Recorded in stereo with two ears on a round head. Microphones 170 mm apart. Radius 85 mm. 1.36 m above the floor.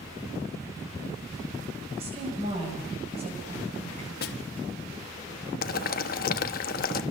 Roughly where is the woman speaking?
Right.